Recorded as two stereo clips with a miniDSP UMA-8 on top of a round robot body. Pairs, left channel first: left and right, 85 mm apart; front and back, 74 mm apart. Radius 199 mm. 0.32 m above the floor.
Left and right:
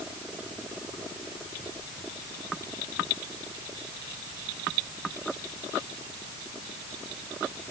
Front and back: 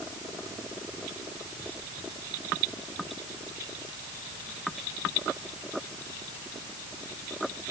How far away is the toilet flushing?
I don't hear a toilet flushing.